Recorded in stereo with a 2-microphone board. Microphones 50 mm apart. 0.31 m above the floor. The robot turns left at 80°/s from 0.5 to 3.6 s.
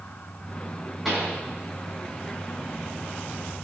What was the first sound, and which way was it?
A pop, 5° right (ahead or behind).